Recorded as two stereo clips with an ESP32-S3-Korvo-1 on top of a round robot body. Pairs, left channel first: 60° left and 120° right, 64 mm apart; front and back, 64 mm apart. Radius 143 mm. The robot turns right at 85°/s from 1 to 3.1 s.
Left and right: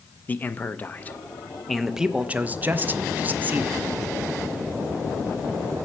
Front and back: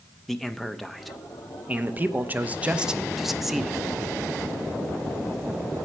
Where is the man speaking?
85° left, 0.7 m; by 3.9 s 100° right, 0.7 m.